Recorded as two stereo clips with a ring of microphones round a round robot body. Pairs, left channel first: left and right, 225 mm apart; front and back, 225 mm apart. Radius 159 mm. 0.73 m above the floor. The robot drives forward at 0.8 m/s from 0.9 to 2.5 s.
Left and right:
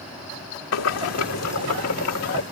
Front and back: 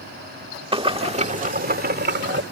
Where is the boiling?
115° left; by 2.4 s 140° left.